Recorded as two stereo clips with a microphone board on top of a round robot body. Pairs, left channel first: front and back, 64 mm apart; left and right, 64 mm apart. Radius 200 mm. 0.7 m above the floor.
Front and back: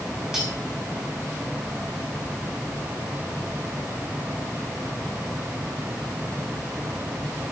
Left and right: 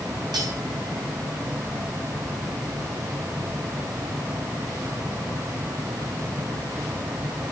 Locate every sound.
0.3 s cutlery clinking: 95° right, 5.5 m